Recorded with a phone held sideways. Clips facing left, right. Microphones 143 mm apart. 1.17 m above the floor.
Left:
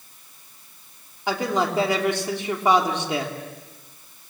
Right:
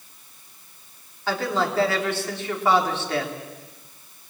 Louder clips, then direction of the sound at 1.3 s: Left 1 dB; 15° left (ahead or behind).